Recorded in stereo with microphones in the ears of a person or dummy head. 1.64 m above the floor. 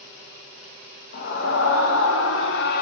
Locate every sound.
1.1 s a scream: 50° left (ahead or behind), 2.5 m; by 2.8 s 60° left (ahead or behind), 1.6 m